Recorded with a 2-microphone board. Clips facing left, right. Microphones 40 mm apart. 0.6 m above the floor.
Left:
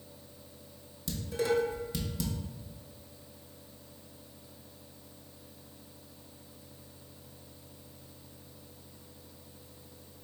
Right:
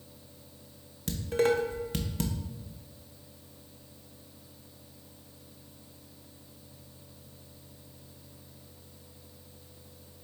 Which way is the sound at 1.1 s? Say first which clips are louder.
Right 4 dB; 50° right (ahead or behind).